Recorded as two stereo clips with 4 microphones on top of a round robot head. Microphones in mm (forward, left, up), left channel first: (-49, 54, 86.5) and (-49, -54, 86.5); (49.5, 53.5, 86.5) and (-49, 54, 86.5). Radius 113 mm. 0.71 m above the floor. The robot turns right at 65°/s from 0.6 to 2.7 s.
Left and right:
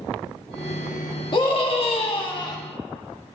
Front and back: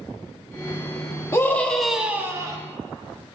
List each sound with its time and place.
1.3 s a scream: 55° left, 1.4 m; by 2.6 s 135° left, 1.4 m